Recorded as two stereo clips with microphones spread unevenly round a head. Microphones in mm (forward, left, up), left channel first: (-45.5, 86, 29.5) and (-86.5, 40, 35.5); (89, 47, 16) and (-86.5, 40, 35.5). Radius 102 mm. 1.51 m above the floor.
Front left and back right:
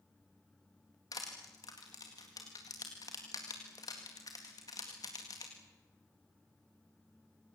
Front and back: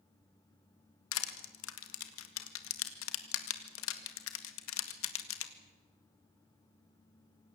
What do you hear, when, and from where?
1.1 s crushing: 15° right, 1.9 m